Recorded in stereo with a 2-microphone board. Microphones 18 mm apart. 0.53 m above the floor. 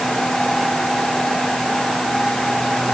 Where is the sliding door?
No sliding door in this recording.